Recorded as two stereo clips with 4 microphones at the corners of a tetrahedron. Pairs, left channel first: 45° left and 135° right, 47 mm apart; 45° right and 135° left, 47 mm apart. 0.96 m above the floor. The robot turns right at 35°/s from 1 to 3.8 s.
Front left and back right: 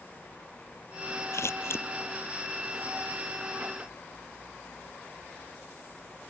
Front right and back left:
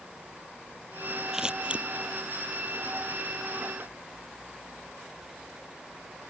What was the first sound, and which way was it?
Scissors, 60° left.